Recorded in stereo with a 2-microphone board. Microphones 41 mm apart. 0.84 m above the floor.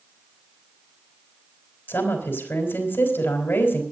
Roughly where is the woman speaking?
Left.